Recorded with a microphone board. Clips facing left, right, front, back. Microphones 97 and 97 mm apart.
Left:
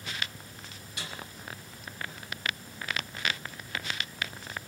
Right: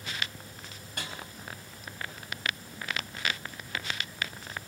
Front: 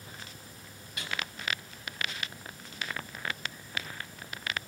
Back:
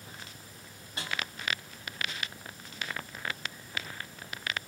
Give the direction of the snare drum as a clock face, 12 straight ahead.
4 o'clock.